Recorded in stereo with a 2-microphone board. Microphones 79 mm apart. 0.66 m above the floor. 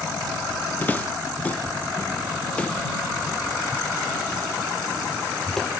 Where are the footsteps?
25° left (ahead or behind); by 5.7 s 5° left (ahead or behind).